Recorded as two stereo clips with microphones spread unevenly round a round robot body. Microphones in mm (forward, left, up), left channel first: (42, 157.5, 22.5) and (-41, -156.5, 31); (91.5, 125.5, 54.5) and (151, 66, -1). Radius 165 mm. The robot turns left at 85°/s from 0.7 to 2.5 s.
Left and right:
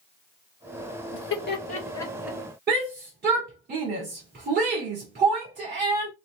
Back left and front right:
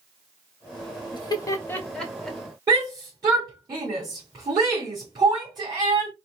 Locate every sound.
1.1 s laughter: 75° left, 1.3 m; by 2.4 s 30° right, 1.3 m
2.7 s a shout: 45° right, 1.7 m